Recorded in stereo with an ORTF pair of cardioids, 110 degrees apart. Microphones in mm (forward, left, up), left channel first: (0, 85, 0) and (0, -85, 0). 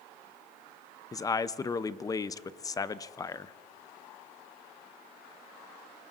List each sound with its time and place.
1.1 s a man speaking: 20° left, 0.5 m